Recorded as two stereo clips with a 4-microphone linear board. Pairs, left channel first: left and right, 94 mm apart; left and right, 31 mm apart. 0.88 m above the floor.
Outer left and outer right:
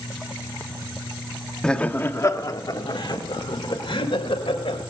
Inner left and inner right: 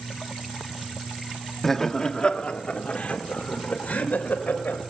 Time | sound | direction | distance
1.6 | laughter | 10° left (ahead or behind) | 1.2 m